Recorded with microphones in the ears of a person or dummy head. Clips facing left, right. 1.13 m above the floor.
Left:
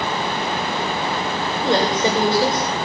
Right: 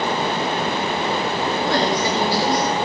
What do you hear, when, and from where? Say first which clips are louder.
1.6 s a woman speaking: left 4 dB; 25° left (ahead or behind), 4.5 m